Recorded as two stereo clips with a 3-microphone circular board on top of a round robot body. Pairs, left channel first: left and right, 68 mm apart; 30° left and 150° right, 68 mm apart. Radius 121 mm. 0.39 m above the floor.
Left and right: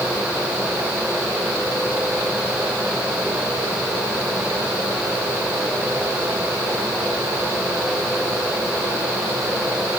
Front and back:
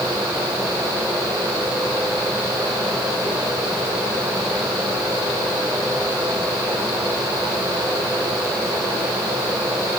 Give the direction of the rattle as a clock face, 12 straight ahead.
No rattle in this recording.